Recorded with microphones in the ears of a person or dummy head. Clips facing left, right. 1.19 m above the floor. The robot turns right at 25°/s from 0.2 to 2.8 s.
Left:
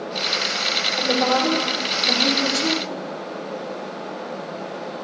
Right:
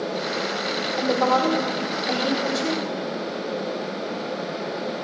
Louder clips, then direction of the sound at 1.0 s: Even; 10° left.